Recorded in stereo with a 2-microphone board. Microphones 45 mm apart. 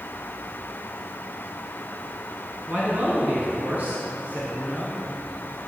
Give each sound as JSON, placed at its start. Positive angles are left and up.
{"t": 2.7, "sound": "a man speaking", "side_deg": -25, "distance_m": 2.5}